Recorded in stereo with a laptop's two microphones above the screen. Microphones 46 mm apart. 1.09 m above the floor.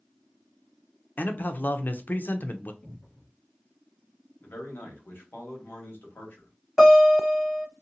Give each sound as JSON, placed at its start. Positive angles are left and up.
{"t": 1.2, "sound": "a man speaking", "side_deg": 50, "distance_m": 0.5}
{"t": 2.8, "sound": "a cupboard door", "side_deg": 30, "distance_m": 1.0}
{"t": 4.4, "sound": "a man speaking", "side_deg": 55, "distance_m": 1.1}
{"t": 6.8, "sound": "a guitar", "side_deg": 0, "distance_m": 1.3}